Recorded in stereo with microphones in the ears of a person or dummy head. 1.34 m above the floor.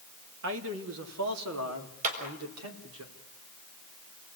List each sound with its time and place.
0.4 s a man speaking: 65° right (ahead or behind), 2.5 m; by 3.0 s 75° right (ahead or behind), 4 m
2.0 s a clap: 40° right (ahead or behind), 5 m